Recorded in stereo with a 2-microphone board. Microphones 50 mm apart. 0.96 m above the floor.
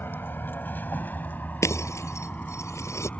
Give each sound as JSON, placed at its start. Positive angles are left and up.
{"t": 0.0, "sound": "a vehicle", "side_deg": 45}
{"t": 1.6, "sound": "breaking glass", "side_deg": 80}